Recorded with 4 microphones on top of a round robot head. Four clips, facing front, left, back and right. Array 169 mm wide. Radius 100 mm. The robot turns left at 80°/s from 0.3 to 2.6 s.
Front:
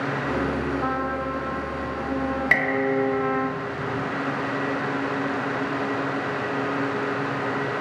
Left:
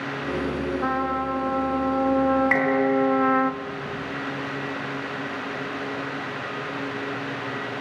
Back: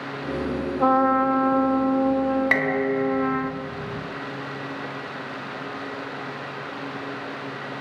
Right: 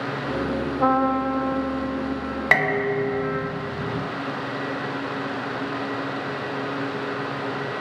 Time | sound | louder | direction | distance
0.8 | a trumpet | right 8 dB, back 7 dB | 135° right | 1.9 m
2.5 | dishes clattering | left 2 dB, even | 85° right | 3 m